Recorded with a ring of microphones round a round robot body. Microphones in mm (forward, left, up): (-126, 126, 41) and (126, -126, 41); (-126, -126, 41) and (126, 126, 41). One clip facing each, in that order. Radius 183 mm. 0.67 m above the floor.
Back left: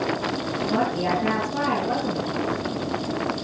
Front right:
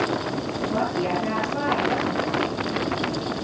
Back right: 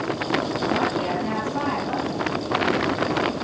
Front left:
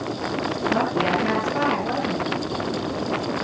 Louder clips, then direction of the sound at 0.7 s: Back left 1 dB, front left 4 dB; 55° left.